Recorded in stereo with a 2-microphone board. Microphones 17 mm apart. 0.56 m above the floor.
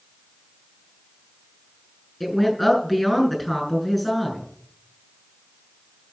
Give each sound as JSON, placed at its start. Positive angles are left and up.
{"t": 2.2, "sound": "a woman speaking", "side_deg": -10, "distance_m": 7.0}